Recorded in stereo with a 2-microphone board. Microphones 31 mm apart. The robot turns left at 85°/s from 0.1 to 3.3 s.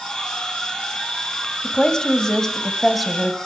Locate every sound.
1.6 s a woman speaking: 20° left (ahead or behind), 1.5 m; by 3.4 s 5° right (ahead or behind), 1.5 m